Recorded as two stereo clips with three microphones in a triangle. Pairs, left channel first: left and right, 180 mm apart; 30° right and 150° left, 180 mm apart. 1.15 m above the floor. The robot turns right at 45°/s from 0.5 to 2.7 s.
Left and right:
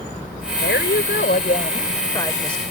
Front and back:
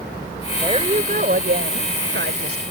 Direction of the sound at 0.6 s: 85° left.